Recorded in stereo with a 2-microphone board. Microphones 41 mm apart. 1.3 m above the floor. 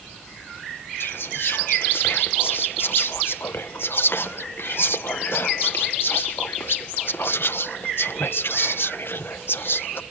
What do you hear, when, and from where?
1.0 s whispering: 65° left (ahead or behind)